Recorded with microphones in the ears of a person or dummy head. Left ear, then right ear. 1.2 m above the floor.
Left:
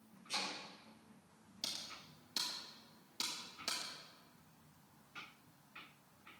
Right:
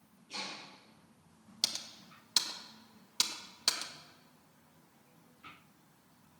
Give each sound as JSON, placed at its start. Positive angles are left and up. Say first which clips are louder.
{"t": 0.3, "sound": "chopping", "louder": "even", "side_deg": 60, "distance_m": 5.5}
{"t": 1.6, "sound": "typing on a keyboard", "louder": "right 8 dB", "side_deg": -45, "distance_m": 1.4}